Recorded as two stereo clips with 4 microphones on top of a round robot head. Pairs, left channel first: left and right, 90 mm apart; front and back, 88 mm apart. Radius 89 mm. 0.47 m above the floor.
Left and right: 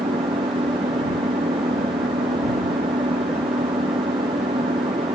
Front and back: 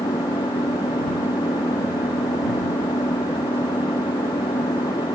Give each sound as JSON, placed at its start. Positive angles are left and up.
{"t": 0.0, "sound": "an engine running", "azimuth_deg": -55}